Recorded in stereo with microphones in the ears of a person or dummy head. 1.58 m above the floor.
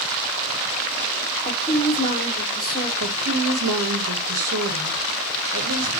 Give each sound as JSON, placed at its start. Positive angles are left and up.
{"t": 1.4, "sound": "a woman speaking", "side_deg": 25, "distance_m": 3.5}
{"t": 3.0, "sound": "a woman speaking", "side_deg": -85, "distance_m": 1.3}